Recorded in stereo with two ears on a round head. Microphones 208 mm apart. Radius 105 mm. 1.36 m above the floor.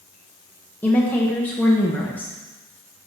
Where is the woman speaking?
10° left (ahead or behind), 0.8 m.